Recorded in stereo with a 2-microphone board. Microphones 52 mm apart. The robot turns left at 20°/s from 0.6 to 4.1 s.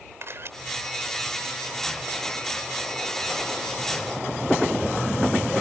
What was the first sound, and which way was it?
A camera shutter, 55° right (ahead or behind).